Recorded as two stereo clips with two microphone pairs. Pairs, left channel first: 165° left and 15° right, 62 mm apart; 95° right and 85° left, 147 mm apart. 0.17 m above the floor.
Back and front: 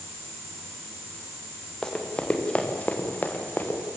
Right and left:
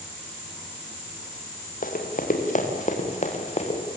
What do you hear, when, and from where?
1.8 s running footsteps: 115° right, 5 m; by 3.8 s 140° right, 5 m